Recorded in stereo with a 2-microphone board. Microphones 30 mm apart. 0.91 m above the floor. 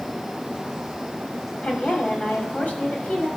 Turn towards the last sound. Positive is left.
turn(degrees=55)  # may be behind; listen again after turning